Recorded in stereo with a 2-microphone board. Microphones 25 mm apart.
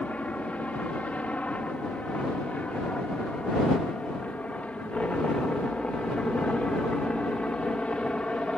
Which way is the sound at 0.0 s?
65° left (ahead or behind).